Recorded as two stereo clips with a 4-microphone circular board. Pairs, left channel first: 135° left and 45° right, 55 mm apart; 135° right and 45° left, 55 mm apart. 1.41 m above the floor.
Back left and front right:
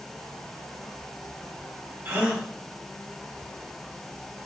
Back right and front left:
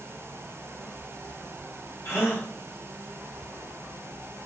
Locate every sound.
2.0 s a gasp: 100° right, 2.5 m